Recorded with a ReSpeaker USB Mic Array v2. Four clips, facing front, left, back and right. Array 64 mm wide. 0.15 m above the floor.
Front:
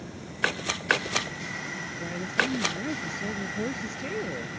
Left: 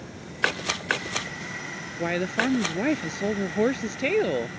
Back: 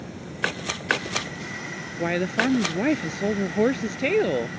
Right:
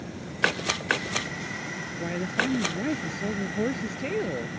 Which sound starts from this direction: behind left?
A woman speaking, at 2.0 s.